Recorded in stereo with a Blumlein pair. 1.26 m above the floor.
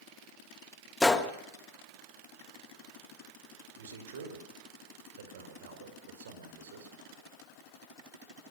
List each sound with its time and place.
1.0 s a gunshot: 10° left, 1.5 m
3.8 s a man speaking: 60° right, 4 m